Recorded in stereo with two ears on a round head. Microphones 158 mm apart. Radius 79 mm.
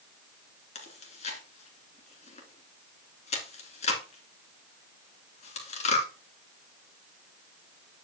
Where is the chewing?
40° left (ahead or behind), 2 m.